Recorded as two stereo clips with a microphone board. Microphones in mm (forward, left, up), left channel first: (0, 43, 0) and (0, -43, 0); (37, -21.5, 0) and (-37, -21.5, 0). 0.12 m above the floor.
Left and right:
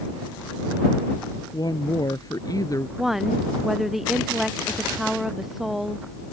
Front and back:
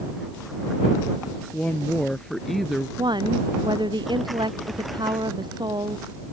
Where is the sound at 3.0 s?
175° right.